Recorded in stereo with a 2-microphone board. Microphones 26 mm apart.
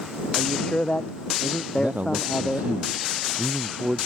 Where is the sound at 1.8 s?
65° right (ahead or behind).